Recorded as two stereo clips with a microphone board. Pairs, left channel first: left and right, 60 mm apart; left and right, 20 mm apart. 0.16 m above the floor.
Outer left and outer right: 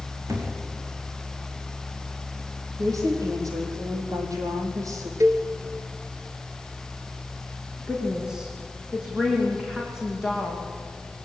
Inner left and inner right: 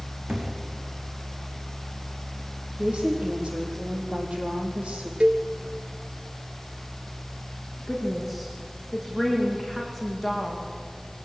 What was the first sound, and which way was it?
A thud, 65° right (ahead or behind).